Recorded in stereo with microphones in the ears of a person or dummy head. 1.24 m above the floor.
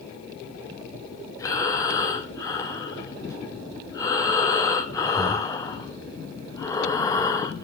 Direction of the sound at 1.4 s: 15° left (ahead or behind).